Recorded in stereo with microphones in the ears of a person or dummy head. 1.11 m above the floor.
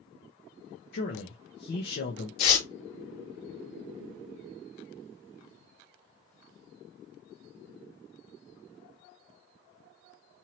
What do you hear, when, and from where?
0.9 s a man speaking: 50° left (ahead or behind), 0.9 m
2.4 s tearing paper: 70° left (ahead or behind), 2.5 m